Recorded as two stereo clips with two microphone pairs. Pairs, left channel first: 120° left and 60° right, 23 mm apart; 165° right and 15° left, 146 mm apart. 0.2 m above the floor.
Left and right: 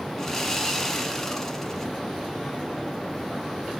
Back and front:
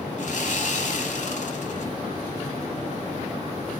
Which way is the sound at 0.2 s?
170° right.